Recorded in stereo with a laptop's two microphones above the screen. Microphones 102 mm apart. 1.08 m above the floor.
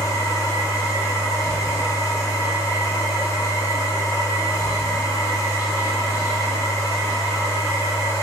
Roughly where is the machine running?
Left.